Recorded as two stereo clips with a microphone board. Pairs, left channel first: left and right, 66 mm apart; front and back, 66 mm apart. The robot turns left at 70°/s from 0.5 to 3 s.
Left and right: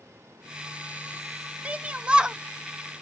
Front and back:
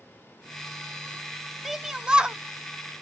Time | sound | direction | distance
1.6 | a shout | 100° right | 0.5 m